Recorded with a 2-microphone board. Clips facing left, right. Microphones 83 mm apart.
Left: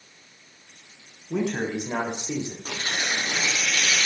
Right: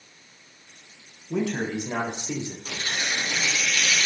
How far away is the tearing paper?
About 3.5 m.